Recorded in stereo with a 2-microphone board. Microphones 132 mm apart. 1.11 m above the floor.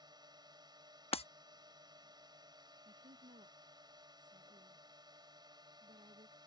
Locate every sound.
0.0 s a drone: 30° right (ahead or behind)
1.1 s breaking glass: 50° left (ahead or behind)
2.9 s a woman speaking: 70° right (ahead or behind)